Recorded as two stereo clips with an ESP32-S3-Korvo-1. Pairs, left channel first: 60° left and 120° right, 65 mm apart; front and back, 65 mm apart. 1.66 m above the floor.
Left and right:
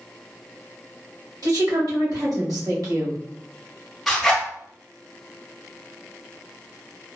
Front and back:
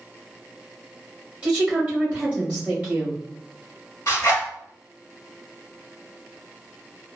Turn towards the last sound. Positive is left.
turn(degrees=-25)